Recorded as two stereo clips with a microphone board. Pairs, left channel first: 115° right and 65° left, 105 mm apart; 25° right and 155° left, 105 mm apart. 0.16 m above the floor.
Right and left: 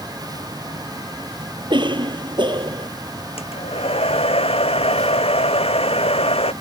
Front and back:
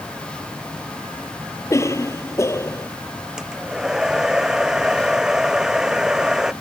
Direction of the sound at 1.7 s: 35° left.